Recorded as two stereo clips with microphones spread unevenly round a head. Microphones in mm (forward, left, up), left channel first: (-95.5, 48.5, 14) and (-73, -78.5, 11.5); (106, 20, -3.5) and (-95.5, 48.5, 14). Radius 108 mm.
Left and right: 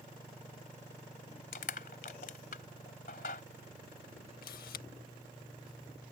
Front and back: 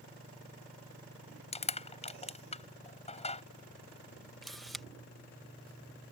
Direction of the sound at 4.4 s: 85° left.